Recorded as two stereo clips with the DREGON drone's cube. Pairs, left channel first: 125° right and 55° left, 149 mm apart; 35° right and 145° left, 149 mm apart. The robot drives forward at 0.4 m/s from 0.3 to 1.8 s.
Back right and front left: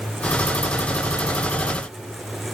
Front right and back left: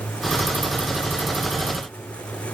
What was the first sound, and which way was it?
Only background noise.